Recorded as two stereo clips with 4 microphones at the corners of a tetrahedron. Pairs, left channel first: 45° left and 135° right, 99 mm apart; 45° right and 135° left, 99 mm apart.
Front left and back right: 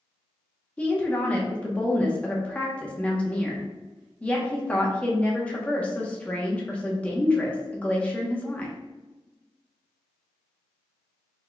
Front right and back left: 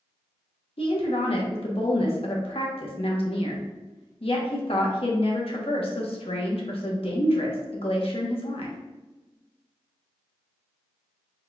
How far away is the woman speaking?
About 1.0 m.